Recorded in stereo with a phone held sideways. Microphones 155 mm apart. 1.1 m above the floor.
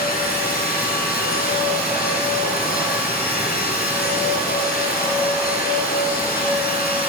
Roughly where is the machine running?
Left.